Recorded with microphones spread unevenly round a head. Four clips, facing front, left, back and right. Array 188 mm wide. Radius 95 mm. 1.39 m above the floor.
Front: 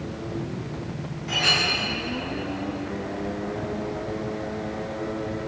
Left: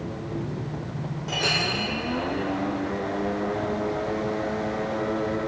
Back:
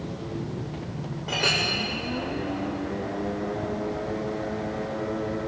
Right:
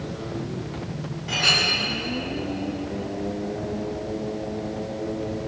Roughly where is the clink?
Behind left.